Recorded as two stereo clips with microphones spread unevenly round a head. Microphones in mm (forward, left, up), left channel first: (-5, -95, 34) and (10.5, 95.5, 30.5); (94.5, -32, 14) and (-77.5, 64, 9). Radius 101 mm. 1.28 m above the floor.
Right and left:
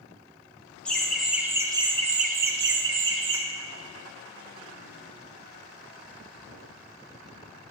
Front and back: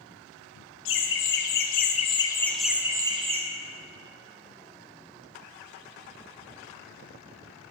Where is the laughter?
10° right, 1.3 m; by 3.4 s 95° left, 1.1 m.